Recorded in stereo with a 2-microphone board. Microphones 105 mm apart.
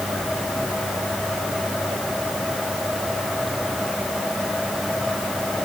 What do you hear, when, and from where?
Only background noise.